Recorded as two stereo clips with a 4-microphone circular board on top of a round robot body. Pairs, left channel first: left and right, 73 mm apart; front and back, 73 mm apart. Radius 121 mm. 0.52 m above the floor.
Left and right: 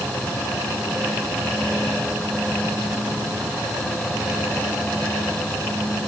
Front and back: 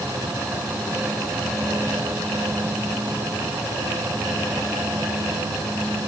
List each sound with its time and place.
Only background noise.